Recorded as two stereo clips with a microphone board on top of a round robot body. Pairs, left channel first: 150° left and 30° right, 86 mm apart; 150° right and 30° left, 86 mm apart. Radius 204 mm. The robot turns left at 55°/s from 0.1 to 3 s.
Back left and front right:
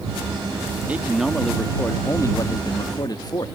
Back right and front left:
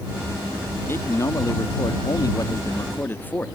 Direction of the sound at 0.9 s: 95° right.